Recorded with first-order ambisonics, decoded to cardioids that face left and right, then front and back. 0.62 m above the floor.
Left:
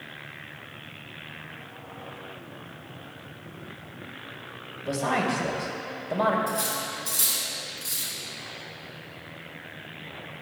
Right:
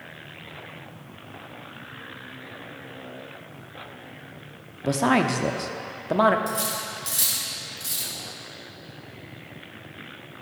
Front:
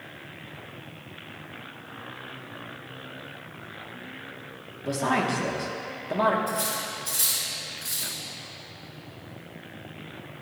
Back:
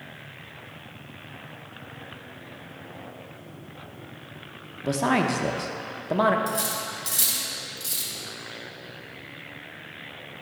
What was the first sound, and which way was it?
A woman speaking, 115° right.